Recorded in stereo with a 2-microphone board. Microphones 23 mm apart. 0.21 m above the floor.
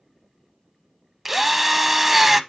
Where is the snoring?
I don't hear snoring.